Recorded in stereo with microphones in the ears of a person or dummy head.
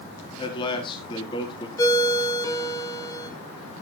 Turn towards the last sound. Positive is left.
turn(degrees=20)  # may be behind; listen again after turning